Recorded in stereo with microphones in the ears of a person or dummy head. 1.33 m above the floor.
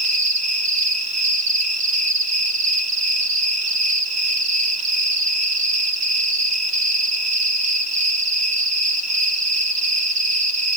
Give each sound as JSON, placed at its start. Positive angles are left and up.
{"t": 0.0, "sound": "an insect", "side_deg": -45, "distance_m": 0.9}